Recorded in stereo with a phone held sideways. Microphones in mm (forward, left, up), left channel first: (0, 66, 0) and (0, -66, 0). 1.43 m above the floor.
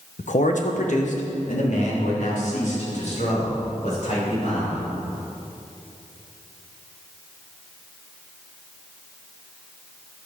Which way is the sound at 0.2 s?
70° left (ahead or behind).